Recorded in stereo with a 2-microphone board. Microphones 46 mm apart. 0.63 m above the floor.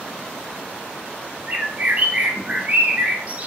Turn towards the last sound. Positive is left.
turn(degrees=-35)  # may be behind; listen again after turning